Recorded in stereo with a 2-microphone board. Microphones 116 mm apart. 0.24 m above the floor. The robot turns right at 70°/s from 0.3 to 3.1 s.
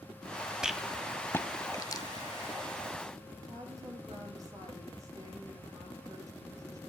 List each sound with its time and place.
0.6 s a rattle: 5° right (ahead or behind), 1.2 m; by 2.0 s 30° left (ahead or behind), 1.2 m
3.4 s a woman speaking: 30° right (ahead or behind), 8 m